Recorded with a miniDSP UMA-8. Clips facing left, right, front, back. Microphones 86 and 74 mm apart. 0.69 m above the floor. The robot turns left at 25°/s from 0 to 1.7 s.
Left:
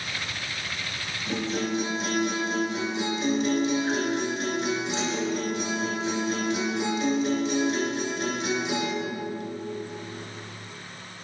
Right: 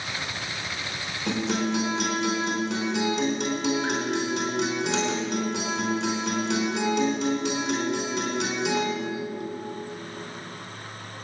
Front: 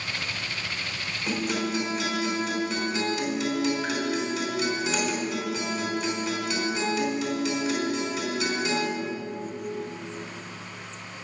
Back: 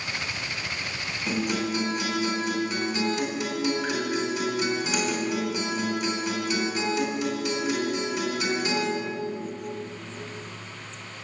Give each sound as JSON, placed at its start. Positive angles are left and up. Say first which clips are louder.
{"t": 1.3, "sound": "a guitar", "louder": "right 2 dB, back 1 dB", "azimuth_deg": -90, "distance_m": 4.5}